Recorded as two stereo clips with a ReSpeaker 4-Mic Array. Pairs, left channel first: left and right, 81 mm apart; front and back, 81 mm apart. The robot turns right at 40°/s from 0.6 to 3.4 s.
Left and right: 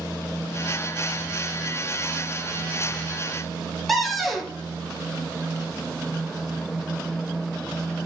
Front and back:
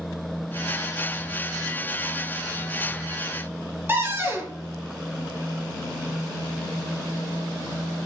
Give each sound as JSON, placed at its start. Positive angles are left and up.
{"t": 3.9, "sound": "a cupboard door", "azimuth_deg": 180, "distance_m": 0.7}